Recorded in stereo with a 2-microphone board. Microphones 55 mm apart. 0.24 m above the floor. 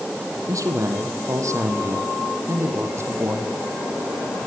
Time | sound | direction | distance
0.5 | a man speaking | 75° right (ahead or behind) | 6.5 m